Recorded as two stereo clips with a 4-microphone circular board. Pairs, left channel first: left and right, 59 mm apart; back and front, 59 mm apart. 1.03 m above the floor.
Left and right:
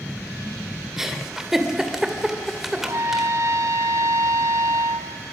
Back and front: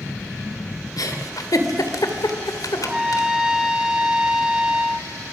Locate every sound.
1.0 s a giggle: 175° right, 2.5 m
2.8 s a trumpet: 80° right, 1.5 m